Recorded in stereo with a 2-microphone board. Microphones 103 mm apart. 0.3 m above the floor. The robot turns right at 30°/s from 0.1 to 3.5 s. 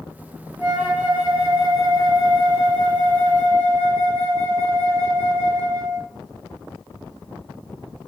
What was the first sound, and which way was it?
A flute, 15° right (ahead or behind).